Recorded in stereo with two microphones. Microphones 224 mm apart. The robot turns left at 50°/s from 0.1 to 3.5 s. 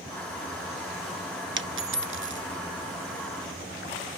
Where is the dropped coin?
55° right (ahead or behind), 0.5 m.